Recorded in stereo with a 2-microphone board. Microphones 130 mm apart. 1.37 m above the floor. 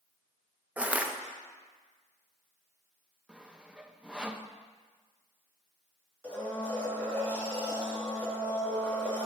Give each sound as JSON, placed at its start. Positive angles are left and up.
{"t": 0.8, "sound": "crushing", "side_deg": -10, "distance_m": 0.7}
{"t": 3.3, "sound": "sawing", "side_deg": -5, "distance_m": 0.6}
{"t": 6.2, "sound": "a blender", "side_deg": 10, "distance_m": 2.5}